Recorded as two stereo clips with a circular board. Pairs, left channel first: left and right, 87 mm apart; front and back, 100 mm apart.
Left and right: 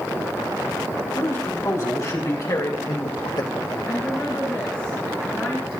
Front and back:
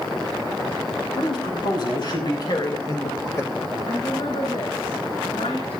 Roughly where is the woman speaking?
Ahead.